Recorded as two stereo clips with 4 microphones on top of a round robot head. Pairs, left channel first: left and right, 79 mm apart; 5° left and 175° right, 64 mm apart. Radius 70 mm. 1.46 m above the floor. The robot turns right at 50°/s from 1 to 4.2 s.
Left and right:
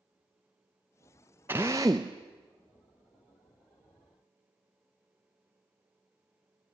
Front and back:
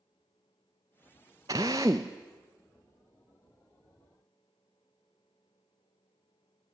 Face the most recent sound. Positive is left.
turn(degrees=-20)